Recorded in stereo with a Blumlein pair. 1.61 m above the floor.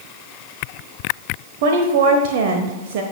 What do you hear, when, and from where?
1.6 s a woman speaking: 50° right, 1.0 m